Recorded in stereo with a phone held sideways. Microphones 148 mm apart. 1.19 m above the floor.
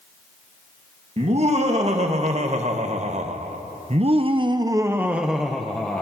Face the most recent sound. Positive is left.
turn(degrees=10)  # may be behind; listen again after turning